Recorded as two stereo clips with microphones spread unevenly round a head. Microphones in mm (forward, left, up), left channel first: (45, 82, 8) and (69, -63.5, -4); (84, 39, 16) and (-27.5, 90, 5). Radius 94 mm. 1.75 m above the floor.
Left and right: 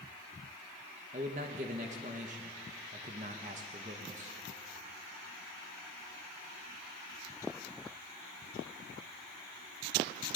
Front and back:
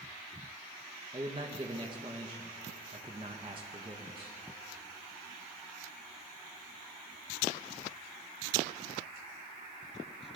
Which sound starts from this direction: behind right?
A man speaking, at 1.1 s.